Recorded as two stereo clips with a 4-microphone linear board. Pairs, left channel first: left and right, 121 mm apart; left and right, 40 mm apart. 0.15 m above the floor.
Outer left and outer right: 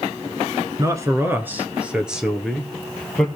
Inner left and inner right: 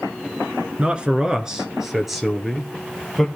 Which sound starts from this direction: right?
A man speaking, at 0.8 s.